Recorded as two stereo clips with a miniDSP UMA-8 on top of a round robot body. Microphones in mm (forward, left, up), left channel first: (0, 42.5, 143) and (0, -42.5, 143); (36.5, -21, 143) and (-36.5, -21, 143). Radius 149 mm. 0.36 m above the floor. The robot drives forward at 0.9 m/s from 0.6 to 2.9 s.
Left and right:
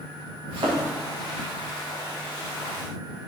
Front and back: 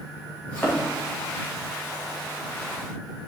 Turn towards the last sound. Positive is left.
turn(degrees=-100)